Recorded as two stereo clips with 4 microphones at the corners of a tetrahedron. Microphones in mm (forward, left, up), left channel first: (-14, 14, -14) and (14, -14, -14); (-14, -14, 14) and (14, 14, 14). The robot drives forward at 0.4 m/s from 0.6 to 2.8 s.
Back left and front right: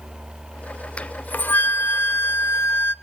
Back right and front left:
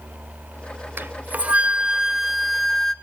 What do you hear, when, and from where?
1.0 s a flute: 75° left, 0.5 m; by 2.9 s 140° left, 0.8 m